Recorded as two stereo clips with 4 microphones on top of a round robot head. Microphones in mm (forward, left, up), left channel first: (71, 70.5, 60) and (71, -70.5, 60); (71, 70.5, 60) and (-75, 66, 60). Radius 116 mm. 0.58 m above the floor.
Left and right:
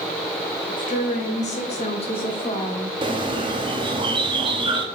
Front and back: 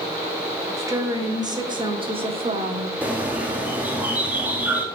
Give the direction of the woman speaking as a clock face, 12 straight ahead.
8 o'clock.